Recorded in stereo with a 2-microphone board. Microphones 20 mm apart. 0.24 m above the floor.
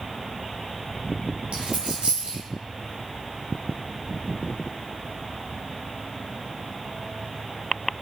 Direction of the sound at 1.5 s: 60° right (ahead or behind).